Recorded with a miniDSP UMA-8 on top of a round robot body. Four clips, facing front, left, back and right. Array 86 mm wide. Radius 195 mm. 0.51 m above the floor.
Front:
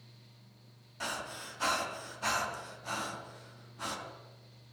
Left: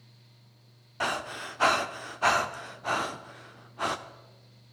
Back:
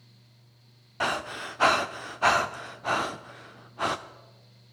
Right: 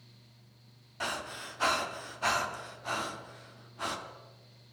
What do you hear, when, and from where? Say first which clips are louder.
1.0 s breathing: left 6 dB, back 10 dB; 150° left, 0.7 m